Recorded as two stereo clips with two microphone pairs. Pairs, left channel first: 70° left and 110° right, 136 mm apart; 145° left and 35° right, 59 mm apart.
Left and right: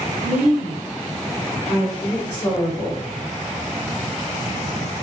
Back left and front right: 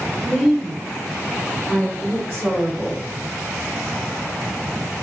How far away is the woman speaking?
About 1.3 m.